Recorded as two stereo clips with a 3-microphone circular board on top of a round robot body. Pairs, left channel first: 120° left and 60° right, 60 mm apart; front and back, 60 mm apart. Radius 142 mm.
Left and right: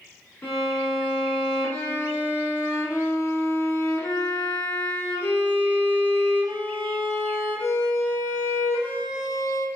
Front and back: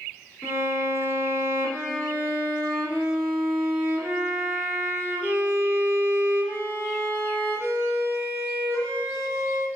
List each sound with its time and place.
0.4 s a violin: 60° left, 1.6 m